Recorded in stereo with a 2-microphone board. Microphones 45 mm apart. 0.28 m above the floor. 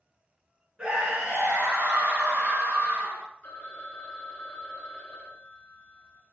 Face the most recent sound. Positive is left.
turn(degrees=30)  # may be behind; listen again after turning